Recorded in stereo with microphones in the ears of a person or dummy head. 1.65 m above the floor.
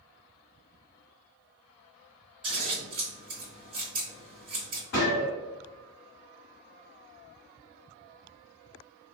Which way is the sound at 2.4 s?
25° right (ahead or behind).